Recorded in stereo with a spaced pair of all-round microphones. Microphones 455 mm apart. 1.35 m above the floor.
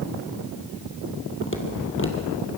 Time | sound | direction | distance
1.4 | footsteps | 25° left (ahead or behind) | 2.5 m